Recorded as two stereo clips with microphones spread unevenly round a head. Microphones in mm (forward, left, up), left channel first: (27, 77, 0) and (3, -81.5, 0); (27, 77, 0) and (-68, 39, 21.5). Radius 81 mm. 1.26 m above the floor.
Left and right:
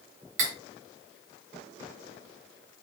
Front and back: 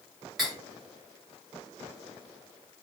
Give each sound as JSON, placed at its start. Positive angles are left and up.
{"t": 0.4, "sound": "cutlery clinking", "azimuth_deg": -80, "distance_m": 0.8}